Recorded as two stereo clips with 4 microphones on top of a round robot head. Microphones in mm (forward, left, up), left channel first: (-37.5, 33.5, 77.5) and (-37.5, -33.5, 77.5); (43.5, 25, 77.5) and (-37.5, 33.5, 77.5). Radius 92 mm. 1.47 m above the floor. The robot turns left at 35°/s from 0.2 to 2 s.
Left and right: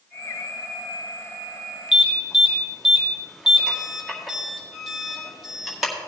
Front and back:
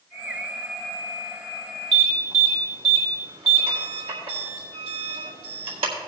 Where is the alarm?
170° right, 1.9 m; by 5.9 s 175° right, 1.9 m.